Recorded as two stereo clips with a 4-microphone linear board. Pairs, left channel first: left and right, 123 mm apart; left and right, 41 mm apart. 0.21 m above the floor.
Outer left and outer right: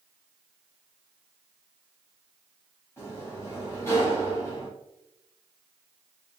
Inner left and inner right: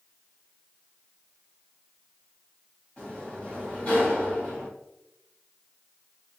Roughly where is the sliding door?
Left.